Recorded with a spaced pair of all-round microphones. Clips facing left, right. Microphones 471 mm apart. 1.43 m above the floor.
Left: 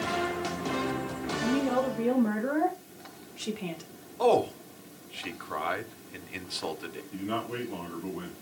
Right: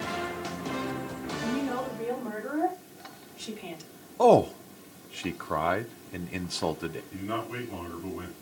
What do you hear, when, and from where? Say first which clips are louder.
1.4 s a woman speaking: left 4 dB; 80° left, 3 m; by 3.8 s 70° left (ahead or behind), 1.6 m
4.2 s a man speaking: right 4 dB; 65° right (ahead or behind), 0.7 m
7.1 s a man speaking: left 1 dB; 45° right (ahead or behind), 5.5 m